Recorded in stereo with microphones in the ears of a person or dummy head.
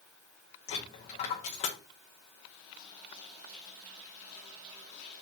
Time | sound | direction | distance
0.7 | a dropped coin | 35° left (ahead or behind) | 0.8 m